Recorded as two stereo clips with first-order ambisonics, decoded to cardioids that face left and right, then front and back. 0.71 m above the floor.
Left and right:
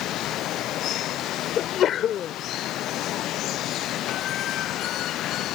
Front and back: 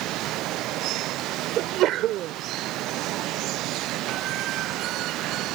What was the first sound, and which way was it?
Running water, 140° left.